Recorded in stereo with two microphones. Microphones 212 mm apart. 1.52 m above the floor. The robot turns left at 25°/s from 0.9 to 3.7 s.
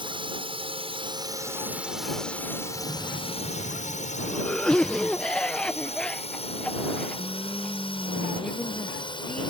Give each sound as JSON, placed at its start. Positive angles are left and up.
{"t": 0.0, "sound": "a drone", "side_deg": -25}
{"t": 2.7, "sound": "a cough", "side_deg": -20}